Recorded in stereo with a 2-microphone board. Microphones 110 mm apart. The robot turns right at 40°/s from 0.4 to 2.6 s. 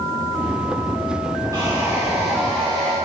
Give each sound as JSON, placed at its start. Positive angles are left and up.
{"t": 1.5, "sound": "sawing", "azimuth_deg": -30, "distance_m": 7.5}